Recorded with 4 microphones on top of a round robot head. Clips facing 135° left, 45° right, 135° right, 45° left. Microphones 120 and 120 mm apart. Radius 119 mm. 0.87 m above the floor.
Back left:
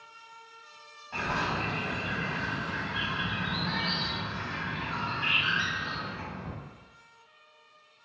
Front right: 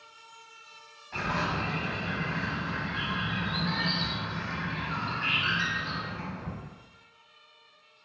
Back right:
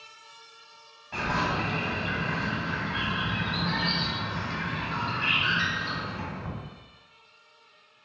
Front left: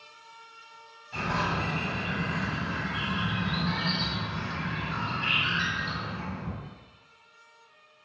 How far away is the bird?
About 1.2 m.